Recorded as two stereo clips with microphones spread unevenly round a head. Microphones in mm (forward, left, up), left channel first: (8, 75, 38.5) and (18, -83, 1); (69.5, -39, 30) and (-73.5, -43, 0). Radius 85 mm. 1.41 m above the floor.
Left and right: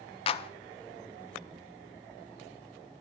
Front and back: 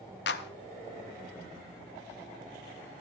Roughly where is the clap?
Ahead left.